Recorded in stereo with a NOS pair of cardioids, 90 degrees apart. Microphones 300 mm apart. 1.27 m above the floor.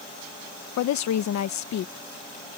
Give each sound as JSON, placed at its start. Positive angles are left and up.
{"t": 0.8, "sound": "a woman speaking", "azimuth_deg": 70}